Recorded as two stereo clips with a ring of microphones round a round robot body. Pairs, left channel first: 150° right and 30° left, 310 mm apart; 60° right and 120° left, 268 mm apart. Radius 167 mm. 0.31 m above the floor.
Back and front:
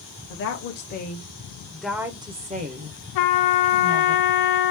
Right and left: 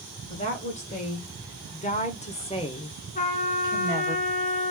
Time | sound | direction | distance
0.3 | a woman speaking | 120° right | 1.4 m
3.1 | a trumpet | 125° right | 0.6 m